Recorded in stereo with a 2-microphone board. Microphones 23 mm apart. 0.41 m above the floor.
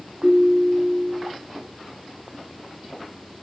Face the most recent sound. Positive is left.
turn(degrees=-55)  # may be behind; listen again after turning